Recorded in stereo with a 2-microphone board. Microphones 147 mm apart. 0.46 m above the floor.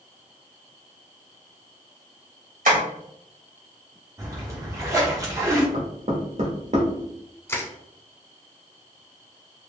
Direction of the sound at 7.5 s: 15° left (ahead or behind).